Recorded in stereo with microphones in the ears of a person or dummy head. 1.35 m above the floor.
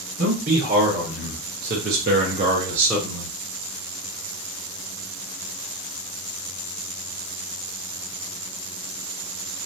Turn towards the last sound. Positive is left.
turn(degrees=5)  # may be behind; listen again after turning